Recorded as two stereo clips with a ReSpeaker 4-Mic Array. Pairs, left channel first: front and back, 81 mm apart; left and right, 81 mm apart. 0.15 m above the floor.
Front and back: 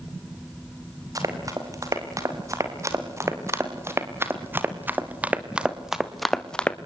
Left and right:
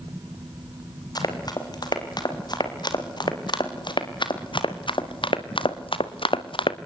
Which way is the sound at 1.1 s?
130° left.